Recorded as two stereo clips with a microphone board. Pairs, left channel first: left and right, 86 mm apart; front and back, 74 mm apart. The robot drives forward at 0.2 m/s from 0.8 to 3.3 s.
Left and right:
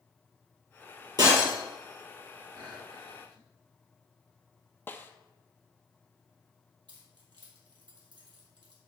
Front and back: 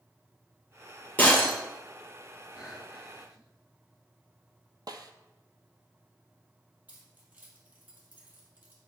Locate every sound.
1.2 s breaking glass: 65° right, 2 m
2.6 s breathing: 100° right, 2.5 m; by 3.5 s 105° right, 2.5 m
4.9 s a snare drum: 155° left, 0.6 m
6.9 s keys jangling: 115° right, 2.5 m